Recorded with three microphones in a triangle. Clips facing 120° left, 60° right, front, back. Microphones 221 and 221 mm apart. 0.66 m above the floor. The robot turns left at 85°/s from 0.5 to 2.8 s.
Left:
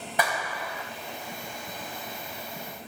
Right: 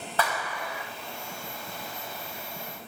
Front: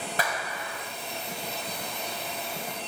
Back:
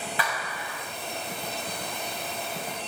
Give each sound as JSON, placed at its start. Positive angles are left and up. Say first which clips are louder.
{"t": 0.2, "sound": "a clap", "louder": "left 1 dB, front 1 dB", "azimuth_deg": 45, "distance_m": 4.0}